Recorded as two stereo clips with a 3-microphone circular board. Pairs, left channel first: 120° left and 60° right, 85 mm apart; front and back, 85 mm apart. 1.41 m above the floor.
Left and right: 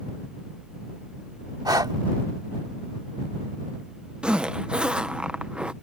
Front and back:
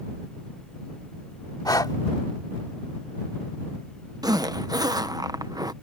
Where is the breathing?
30° right.